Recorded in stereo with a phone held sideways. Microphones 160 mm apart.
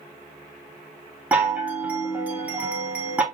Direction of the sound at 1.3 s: 10° right (ahead or behind).